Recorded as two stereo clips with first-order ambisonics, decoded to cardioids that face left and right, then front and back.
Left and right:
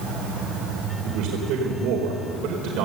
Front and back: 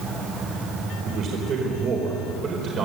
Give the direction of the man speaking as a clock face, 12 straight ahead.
4 o'clock.